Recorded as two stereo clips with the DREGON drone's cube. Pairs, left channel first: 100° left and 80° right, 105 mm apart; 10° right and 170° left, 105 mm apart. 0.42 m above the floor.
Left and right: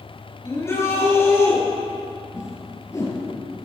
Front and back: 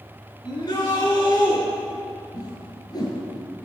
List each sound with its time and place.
0.4 s a shout: 35° left, 7 m
2.3 s a whoosh: 40° left, 4 m